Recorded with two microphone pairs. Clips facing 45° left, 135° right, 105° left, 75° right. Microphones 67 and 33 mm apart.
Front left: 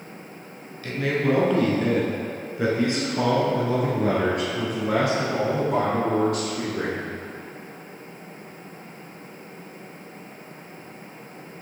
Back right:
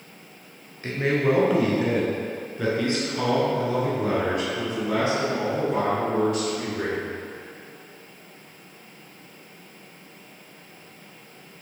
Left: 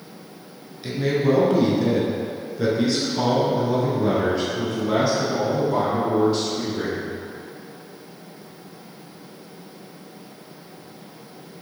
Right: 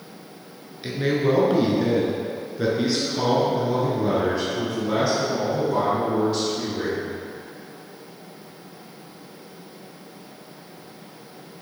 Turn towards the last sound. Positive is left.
turn(degrees=20)